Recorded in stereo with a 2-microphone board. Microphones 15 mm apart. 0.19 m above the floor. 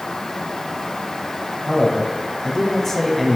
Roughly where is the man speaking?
Left.